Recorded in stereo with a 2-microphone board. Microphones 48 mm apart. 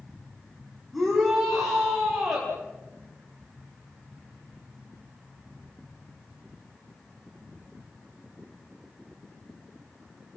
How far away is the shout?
About 8 m.